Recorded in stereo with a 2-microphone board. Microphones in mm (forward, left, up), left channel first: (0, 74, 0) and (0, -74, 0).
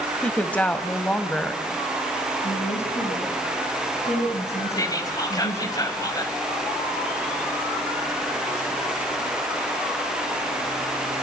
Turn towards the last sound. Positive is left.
turn(degrees=25)  # may be behind; listen again after turning